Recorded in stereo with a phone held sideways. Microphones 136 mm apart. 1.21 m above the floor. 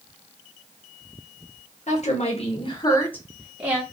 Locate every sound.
1.9 s a woman speaking: 60° left (ahead or behind), 1.1 m; by 3.8 s 15° right (ahead or behind), 0.9 m